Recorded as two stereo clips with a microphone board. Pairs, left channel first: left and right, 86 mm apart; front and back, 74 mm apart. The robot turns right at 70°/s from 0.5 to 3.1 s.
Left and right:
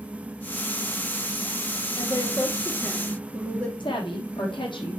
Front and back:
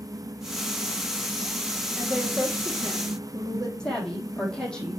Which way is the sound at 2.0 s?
90° left.